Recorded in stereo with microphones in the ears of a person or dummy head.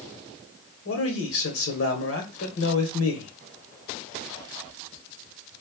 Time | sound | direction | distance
0.8 | a man speaking | 65° left (ahead or behind) | 1.3 m